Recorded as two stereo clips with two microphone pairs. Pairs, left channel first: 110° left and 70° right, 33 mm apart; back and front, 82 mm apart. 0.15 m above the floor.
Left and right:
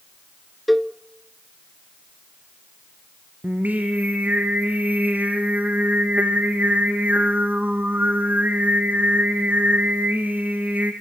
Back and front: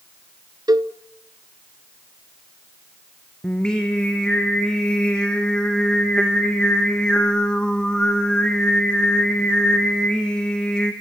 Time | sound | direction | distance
0.7 | a cowbell | 20° left | 0.7 m
3.4 | singing | 95° right | 3 m